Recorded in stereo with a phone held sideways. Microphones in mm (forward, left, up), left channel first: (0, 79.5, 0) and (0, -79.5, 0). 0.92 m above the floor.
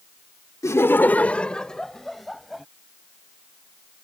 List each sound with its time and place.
0.6 s laughter: 20° left (ahead or behind); by 2.6 s centre (ahead or behind)